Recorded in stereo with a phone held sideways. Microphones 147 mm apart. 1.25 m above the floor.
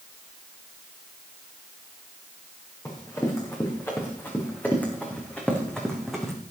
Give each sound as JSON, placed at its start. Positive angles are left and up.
{"t": 2.9, "sound": "running footsteps", "side_deg": 20, "distance_m": 5.5}